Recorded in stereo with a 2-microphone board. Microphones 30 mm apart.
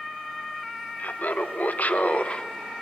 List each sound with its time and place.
1.0 s laughter: 70° left (ahead or behind), 1.5 m; by 2.5 s 30° left (ahead or behind), 0.6 m